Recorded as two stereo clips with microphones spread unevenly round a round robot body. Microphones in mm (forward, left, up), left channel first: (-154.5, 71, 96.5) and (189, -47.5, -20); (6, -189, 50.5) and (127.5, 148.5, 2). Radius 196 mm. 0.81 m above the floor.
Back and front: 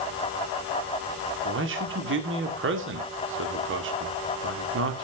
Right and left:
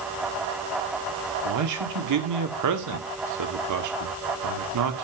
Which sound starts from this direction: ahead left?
A man speaking, at 1.4 s.